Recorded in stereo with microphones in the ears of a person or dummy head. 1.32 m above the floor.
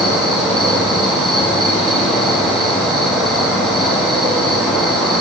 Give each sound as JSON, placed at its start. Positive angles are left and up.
{"t": 0.0, "sound": "an insect", "side_deg": 5, "distance_m": 1.7}